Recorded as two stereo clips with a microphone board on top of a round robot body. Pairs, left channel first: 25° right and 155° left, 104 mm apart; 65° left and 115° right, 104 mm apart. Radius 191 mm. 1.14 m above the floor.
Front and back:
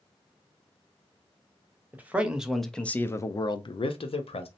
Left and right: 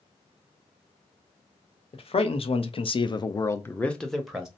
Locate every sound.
1.9 s a man speaking: 85° left, 1.0 m; by 4.5 s 30° right, 0.9 m